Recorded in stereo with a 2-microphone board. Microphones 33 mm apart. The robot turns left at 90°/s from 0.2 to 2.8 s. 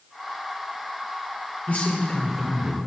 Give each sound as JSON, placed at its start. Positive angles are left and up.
{"t": 1.7, "sound": "a man speaking", "azimuth_deg": 60, "distance_m": 1.9}